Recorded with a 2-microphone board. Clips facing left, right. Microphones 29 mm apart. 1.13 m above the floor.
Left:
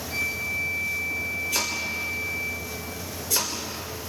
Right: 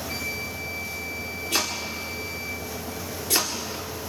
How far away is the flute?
About 2 m.